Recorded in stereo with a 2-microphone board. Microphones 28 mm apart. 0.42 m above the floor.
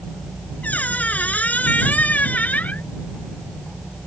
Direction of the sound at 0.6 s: 80° left.